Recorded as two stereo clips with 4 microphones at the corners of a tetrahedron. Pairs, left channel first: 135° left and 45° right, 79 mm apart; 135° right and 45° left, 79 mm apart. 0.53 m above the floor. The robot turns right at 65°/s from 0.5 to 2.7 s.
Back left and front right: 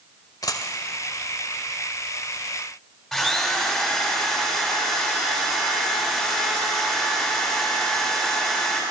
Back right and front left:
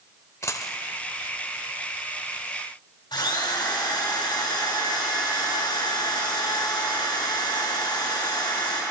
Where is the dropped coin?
175° left, 0.6 m; by 0.8 s 170° right, 0.6 m.